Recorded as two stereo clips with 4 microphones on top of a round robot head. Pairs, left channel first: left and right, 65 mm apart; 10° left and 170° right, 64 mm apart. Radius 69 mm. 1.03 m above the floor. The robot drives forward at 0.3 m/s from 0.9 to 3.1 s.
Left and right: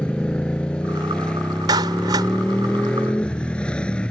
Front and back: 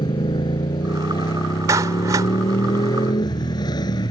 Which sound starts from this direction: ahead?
A motorcycle, at 0.0 s.